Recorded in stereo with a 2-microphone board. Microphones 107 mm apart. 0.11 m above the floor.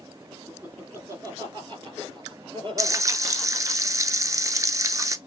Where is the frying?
30° right (ahead or behind), 0.5 m.